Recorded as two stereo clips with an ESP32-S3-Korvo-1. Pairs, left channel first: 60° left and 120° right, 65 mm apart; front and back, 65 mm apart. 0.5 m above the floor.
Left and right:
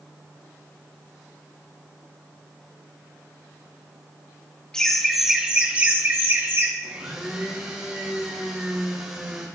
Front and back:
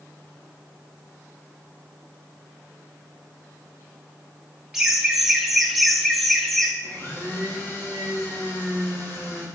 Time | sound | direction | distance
4.7 | laughter | 110° left | 1.0 m
6.8 | a blender | 45° right | 3 m